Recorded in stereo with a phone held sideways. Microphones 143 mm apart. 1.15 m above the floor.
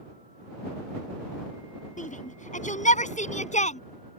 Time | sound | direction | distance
2.0 | a shout | 60° left (ahead or behind) | ?